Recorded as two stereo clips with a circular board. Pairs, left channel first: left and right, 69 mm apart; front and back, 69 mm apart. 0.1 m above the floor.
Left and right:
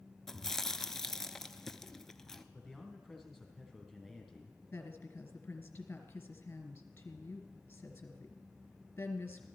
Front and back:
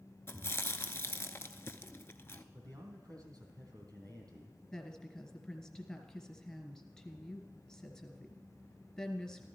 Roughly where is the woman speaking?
Ahead left.